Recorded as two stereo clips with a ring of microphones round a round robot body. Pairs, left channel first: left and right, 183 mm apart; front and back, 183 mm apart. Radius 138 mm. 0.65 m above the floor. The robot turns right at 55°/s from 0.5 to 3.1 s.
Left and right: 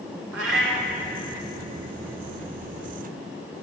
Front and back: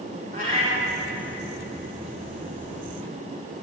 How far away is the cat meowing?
About 1.4 m.